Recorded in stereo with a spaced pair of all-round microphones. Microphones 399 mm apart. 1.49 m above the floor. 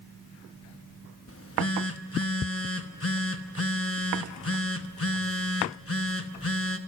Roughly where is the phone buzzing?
Left.